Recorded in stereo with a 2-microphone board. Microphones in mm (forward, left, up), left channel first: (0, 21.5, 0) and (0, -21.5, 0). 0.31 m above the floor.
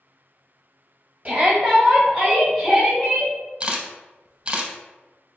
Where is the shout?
25° right (ahead or behind), 1.5 m; by 3.3 s 25° left (ahead or behind), 1.6 m.